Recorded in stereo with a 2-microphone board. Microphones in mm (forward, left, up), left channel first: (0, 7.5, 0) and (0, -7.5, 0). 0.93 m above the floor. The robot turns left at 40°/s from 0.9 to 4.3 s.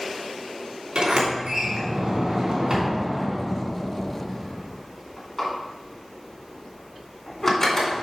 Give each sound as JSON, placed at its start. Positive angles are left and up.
{"t": 0.9, "sound": "a sliding door", "side_deg": -65, "distance_m": 2.5}